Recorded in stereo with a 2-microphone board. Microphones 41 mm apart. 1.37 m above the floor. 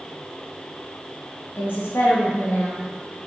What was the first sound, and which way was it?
A woman speaking, 55° left (ahead or behind).